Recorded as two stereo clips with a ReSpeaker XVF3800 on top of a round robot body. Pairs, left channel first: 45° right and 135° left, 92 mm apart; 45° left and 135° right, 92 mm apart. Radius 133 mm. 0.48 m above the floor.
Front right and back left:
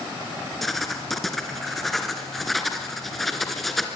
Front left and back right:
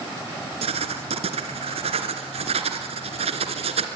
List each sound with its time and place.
0.6 s writing: 135° right, 2 m